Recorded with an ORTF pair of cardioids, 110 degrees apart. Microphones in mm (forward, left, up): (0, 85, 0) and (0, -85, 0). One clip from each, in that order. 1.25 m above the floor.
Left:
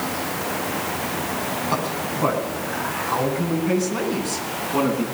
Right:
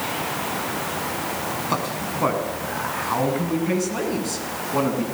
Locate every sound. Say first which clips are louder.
1.7 s a man speaking: left 1 dB; 20° right, 9.5 m; by 5.0 s 5° right, 10 m